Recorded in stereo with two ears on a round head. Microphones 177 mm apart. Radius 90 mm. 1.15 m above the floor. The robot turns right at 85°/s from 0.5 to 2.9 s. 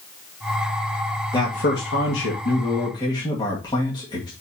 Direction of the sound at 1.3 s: 20° left.